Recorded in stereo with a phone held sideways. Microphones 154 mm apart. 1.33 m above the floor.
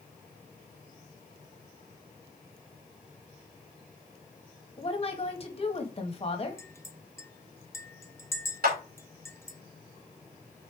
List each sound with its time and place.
4.8 s a woman speaking: 40° left (ahead or behind), 1.5 m
6.6 s a clink: 15° left (ahead or behind), 0.6 m
8.6 s a clap: 65° right (ahead or behind), 3 m